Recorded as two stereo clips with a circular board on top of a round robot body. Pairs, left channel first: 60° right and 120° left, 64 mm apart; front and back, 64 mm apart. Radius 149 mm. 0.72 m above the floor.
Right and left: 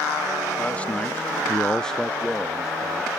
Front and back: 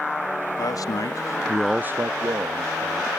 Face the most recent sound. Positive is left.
turn(degrees=-155)